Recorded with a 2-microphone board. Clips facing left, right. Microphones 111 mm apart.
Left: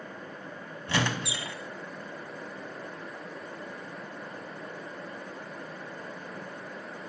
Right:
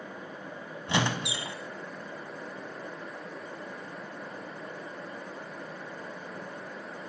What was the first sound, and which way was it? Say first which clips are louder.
A squeak: right 1 dB; 20° right (ahead or behind).